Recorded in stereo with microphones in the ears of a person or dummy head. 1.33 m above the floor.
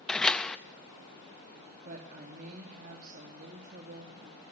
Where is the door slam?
5° left (ahead or behind), 0.8 m.